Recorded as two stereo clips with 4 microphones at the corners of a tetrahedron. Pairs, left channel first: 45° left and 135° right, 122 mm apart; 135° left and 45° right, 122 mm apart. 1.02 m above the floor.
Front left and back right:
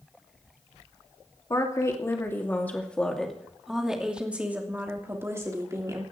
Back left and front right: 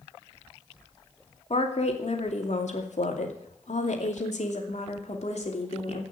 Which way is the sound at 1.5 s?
105° left.